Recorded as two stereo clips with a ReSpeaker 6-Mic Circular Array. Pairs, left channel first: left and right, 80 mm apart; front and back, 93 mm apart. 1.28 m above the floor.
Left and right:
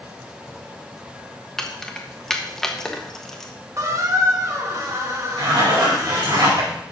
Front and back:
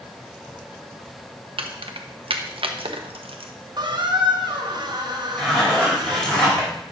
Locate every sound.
1.6 s keys jangling: 175° left, 0.9 m
3.8 s a squeak: 140° right, 1.2 m
5.4 s a zipper: 80° right, 4 m